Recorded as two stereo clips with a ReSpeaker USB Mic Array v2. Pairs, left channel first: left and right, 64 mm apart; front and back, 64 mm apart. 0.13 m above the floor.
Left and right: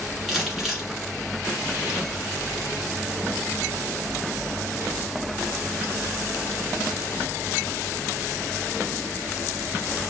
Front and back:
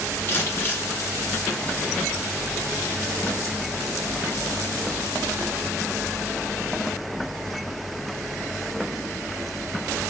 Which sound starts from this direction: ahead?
Crumpling, at 0.3 s.